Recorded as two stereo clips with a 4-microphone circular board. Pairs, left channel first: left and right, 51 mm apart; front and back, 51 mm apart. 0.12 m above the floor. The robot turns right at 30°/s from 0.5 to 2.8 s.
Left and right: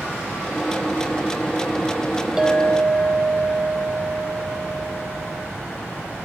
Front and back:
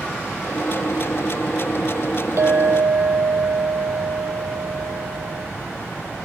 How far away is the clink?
About 2 m.